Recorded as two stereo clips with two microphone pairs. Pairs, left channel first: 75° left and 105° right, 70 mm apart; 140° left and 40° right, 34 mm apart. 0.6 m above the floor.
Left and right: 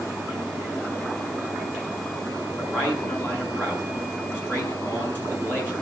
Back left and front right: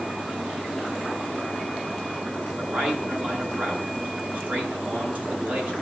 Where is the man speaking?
15° left, 6.5 m.